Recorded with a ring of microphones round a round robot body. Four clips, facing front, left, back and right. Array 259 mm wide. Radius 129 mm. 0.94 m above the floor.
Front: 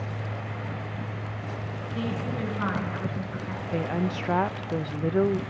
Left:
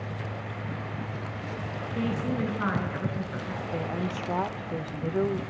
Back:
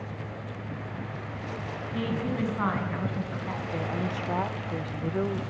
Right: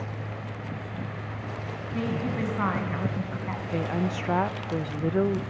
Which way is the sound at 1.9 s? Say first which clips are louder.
Even, back 1 dB; 125° right.